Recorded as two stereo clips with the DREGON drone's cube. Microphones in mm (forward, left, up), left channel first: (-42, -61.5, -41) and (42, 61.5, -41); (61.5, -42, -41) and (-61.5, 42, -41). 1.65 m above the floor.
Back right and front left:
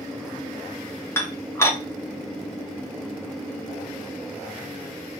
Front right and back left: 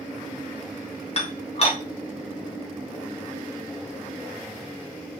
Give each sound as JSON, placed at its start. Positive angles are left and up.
{"t": 1.2, "sound": "dishes clattering", "azimuth_deg": -55, "distance_m": 0.9}